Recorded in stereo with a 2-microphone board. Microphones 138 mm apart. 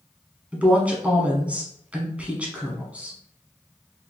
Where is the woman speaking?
10° right (ahead or behind), 1.3 m.